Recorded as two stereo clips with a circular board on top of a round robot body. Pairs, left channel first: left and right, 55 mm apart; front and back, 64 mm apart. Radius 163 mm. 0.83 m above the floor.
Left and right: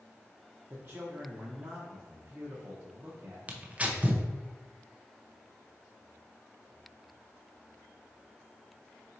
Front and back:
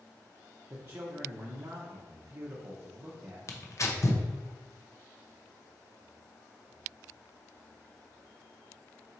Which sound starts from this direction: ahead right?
Tearing paper, at 3.5 s.